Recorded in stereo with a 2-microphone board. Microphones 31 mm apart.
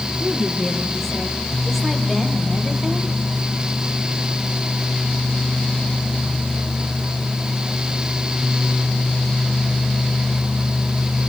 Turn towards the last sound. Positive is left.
turn(degrees=0)  # may be behind; listen again after turning